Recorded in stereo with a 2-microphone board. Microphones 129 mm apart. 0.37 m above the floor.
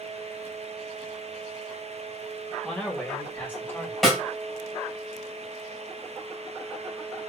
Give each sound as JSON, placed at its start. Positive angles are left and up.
{"t": 2.6, "sound": "a man speaking", "side_deg": 5, "distance_m": 1.8}
{"t": 4.0, "sound": "a snare drum", "side_deg": 0, "distance_m": 2.5}